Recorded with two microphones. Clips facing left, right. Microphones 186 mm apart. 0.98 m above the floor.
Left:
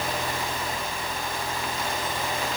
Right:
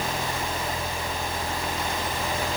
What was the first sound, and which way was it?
Only background noise.